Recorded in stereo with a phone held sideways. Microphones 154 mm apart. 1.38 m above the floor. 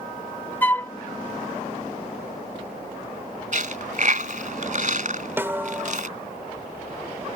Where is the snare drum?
15° right (ahead or behind).